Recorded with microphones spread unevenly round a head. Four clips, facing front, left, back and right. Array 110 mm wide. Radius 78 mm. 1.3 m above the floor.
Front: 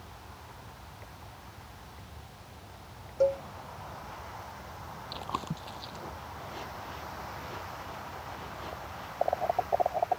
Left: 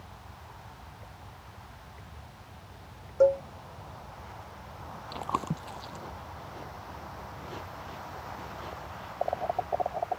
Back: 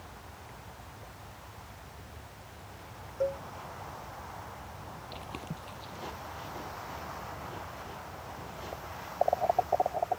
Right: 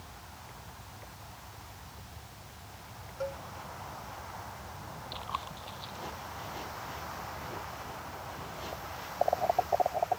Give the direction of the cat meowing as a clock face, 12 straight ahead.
No cat meowing in this recording.